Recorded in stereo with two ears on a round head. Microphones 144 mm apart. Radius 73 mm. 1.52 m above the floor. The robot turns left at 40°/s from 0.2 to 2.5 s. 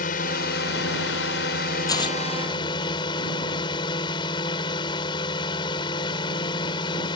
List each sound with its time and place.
0.0 s a drone: 120° left; by 7.2 s 30° left
1.9 s tearing paper: 25° left (ahead or behind); by 2.2 s 35° left (ahead or behind)